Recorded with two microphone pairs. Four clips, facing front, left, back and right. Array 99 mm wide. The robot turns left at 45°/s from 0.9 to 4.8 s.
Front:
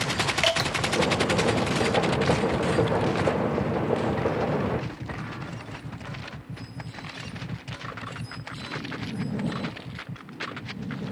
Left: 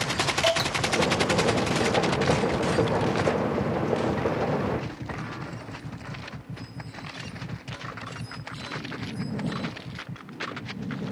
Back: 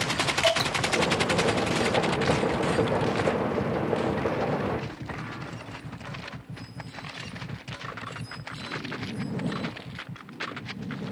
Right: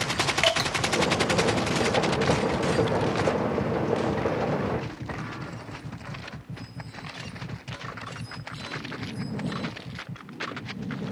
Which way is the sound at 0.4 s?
70° right.